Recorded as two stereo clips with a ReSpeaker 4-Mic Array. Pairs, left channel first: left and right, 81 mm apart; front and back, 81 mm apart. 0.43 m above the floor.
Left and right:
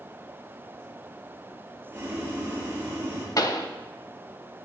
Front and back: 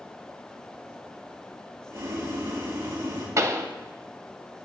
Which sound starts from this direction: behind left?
A pop, at 3.4 s.